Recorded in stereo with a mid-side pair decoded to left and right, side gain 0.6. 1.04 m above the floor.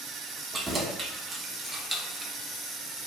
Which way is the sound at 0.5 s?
30° right.